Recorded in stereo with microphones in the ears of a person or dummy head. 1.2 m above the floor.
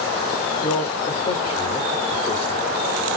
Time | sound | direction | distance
0.6 | a man speaking | 25° left (ahead or behind) | 3.5 m